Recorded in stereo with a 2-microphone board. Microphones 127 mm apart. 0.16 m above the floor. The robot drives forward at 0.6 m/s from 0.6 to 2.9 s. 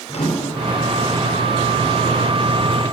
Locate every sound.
0.1 s a microwave: 55° left (ahead or behind), 3 m